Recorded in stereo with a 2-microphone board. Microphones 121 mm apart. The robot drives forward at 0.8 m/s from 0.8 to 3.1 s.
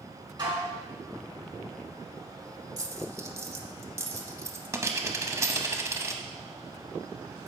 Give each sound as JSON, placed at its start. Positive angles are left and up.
{"t": 0.4, "sound": "dishes clattering", "side_deg": -40, "distance_m": 1.9}
{"t": 2.8, "sound": "a dropped coin", "side_deg": -30, "distance_m": 0.6}